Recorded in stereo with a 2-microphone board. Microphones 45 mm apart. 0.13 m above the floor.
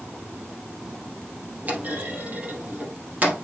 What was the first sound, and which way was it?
A clunk, 35° right (ahead or behind).